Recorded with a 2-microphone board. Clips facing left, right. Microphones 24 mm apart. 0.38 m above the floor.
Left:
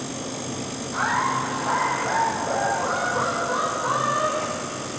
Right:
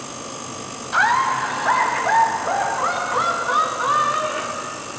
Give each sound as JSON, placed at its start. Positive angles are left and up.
{"t": 0.9, "sound": "laughter", "side_deg": -65, "distance_m": 1.8}